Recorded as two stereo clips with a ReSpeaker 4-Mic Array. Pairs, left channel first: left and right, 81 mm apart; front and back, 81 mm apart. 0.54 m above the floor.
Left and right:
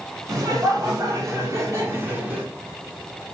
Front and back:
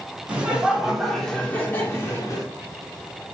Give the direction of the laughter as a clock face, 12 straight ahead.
4 o'clock.